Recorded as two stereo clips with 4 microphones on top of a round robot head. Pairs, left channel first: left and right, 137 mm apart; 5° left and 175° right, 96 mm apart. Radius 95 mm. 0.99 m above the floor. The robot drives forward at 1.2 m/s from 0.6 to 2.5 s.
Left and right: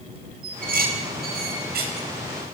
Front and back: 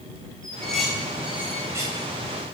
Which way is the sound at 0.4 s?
80° right.